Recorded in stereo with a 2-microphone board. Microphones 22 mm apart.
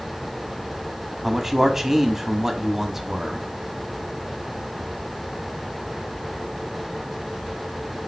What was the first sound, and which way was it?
A man speaking, 20° right (ahead or behind).